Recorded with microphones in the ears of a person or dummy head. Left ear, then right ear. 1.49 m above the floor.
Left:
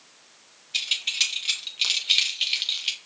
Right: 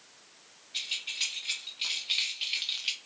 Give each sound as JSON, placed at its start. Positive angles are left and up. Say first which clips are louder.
{"t": 0.7, "sound": "keys jangling", "louder": "left 8 dB", "side_deg": 35, "distance_m": 2.5}